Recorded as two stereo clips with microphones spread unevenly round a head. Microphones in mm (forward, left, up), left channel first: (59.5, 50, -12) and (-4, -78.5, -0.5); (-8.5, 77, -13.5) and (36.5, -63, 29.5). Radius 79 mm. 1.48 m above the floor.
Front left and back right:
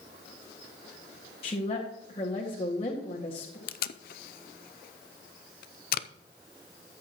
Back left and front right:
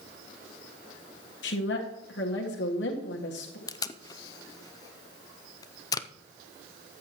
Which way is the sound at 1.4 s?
125° left.